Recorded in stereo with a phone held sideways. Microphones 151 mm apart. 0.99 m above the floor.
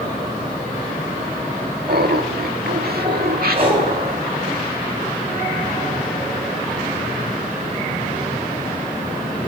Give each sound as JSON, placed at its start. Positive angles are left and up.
{"t": 1.9, "sound": "laughter", "side_deg": -75, "distance_m": 1.5}
{"t": 3.5, "sound": "breathing", "side_deg": -40, "distance_m": 3.5}